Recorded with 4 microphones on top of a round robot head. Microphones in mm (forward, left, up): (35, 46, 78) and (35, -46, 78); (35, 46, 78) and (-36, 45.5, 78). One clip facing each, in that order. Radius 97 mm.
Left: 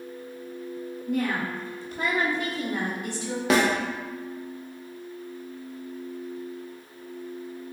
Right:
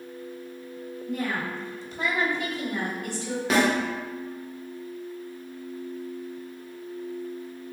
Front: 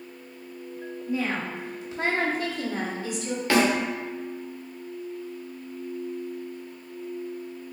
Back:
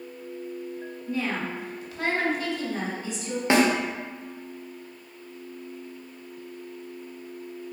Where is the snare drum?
110° left, 0.7 m.